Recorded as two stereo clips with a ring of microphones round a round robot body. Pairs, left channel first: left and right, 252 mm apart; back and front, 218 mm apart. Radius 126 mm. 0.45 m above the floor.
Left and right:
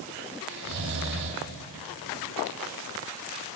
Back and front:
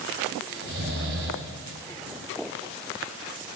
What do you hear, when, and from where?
0.5 s snoring: 45° right, 2.0 m